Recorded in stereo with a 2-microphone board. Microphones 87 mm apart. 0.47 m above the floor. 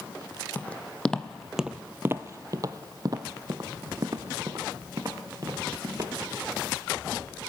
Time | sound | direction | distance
0.6 | footsteps | 20° left (ahead or behind) | 0.9 m